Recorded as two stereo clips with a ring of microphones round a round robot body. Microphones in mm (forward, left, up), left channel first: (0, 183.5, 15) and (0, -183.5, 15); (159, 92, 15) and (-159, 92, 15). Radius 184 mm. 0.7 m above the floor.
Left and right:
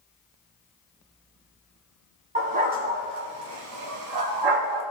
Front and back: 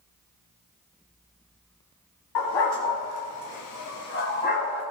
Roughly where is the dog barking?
Ahead.